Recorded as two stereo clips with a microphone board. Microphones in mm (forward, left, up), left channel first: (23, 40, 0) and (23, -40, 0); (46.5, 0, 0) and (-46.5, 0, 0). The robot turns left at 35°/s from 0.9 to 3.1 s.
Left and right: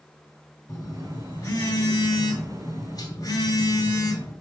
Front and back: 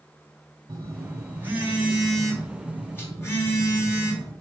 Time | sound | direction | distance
0.7 | a phone buzzing | 135° left | 2.5 m